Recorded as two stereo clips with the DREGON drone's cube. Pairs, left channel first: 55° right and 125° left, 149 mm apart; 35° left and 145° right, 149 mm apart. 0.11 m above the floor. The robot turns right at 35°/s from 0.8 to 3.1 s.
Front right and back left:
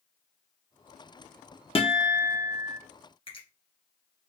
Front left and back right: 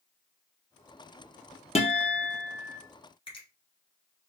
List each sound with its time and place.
1.8 s a guitar: 10° right, 0.9 m; by 2.8 s 30° left, 0.9 m
3.3 s a finger snap: 10° right, 1.8 m